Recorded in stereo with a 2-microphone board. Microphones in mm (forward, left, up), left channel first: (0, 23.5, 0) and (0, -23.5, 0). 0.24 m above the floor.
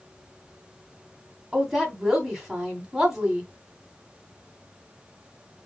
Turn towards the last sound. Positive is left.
turn(degrees=-10)  # may be behind; listen again after turning